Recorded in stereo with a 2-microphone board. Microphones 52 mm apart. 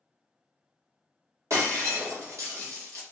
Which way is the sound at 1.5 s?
75° right (ahead or behind).